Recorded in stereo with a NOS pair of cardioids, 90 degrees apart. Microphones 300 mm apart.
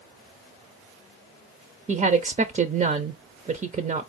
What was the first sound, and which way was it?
A woman speaking, 25° right.